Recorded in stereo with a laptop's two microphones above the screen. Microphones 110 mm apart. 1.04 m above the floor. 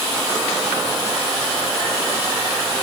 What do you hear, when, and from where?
Only background noise.